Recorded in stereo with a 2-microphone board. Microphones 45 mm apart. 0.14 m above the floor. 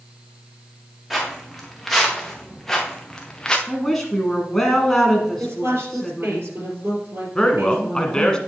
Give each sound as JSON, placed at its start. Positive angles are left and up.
{"t": 1.1, "sound": "footsteps", "side_deg": -10, "distance_m": 3.0}
{"t": 3.7, "sound": "a woman speaking", "side_deg": 5, "distance_m": 1.2}
{"t": 5.4, "sound": "a woman speaking", "side_deg": -65, "distance_m": 3.5}
{"t": 7.3, "sound": "a man speaking", "side_deg": 20, "distance_m": 1.2}